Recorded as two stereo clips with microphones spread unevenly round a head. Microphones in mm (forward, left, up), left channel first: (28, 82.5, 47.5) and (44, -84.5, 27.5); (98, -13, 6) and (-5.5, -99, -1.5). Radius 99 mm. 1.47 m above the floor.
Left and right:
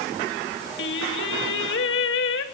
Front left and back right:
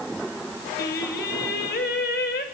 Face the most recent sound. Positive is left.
turn(degrees=85)